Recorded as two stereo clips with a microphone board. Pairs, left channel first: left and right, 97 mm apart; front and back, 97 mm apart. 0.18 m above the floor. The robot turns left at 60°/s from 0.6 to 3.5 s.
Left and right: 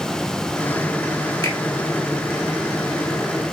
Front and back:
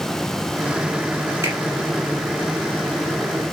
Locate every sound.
1.4 s a finger snap: 130° left, 1.8 m; by 1.6 s 120° left, 1.8 m